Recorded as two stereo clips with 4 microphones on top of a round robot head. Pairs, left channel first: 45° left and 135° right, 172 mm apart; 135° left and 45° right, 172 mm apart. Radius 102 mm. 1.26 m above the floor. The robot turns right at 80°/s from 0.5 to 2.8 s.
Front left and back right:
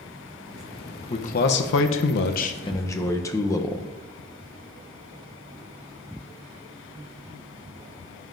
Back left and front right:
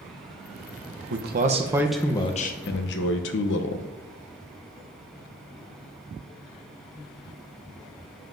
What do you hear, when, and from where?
1.1 s a man speaking: 20° right, 0.7 m; by 3.9 s 115° left, 0.7 m